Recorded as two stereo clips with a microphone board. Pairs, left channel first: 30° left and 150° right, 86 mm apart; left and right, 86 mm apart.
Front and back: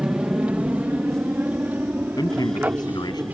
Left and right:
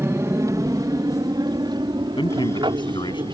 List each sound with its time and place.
0.0 s an aircraft: 85° right; by 3.4 s 80° right
2.2 s a man speaking: 65° left